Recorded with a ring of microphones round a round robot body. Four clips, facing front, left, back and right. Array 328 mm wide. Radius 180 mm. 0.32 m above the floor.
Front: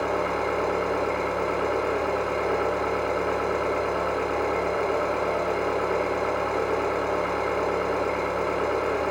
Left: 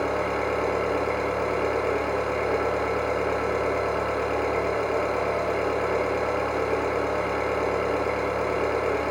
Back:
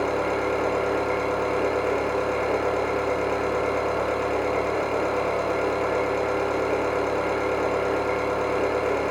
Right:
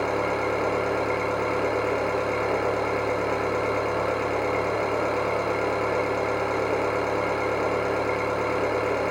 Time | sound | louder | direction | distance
0.0 | an engine running | right 1 dB, back 1 dB | 145° right | 1.6 m